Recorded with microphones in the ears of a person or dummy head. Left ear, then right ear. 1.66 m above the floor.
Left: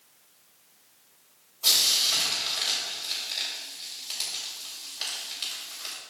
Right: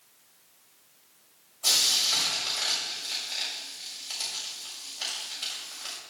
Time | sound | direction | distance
1.6 | frying | 35° left (ahead or behind) | 6 m